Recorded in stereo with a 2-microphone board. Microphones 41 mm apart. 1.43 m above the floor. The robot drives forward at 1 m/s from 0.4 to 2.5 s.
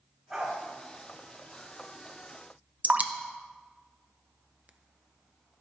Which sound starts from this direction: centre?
A dog barking, at 0.3 s.